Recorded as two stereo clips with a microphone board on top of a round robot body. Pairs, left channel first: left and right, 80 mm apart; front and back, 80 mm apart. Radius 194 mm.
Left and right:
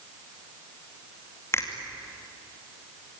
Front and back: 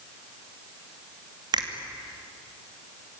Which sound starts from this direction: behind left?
A finger snap, at 1.5 s.